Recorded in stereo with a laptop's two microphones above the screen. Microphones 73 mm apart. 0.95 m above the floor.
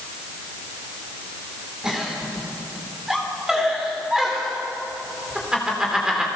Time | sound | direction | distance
1.8 | a giggle | 10° right (ahead or behind) | 3.5 m